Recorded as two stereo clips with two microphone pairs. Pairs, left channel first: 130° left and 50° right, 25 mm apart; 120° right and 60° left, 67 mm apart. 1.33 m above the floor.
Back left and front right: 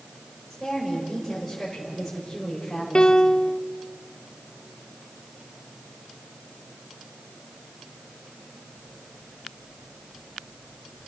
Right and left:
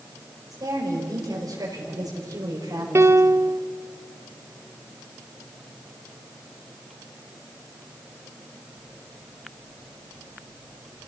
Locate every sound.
0.5 s a woman speaking: 35° left, 4.5 m
3.0 s a piano: 95° left, 0.7 m